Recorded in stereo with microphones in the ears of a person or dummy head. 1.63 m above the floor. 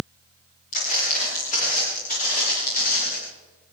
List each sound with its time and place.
0.7 s footsteps: 45° left (ahead or behind), 9.5 m; by 3.2 s 55° left (ahead or behind), 12.5 m